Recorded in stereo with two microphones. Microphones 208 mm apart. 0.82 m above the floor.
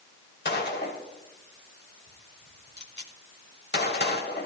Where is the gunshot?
55° left (ahead or behind), 1.3 m.